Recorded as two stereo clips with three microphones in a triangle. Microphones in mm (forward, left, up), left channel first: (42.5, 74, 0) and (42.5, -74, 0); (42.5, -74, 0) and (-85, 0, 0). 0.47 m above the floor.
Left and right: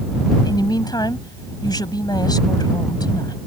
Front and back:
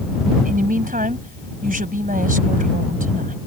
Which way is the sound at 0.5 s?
150° left.